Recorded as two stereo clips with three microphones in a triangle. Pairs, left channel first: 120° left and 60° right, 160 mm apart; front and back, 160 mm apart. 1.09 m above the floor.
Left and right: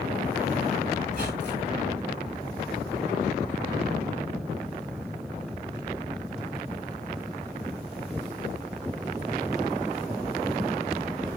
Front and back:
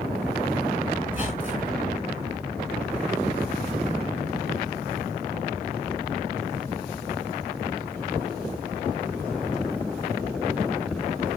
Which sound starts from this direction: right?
A squeak, at 1.1 s.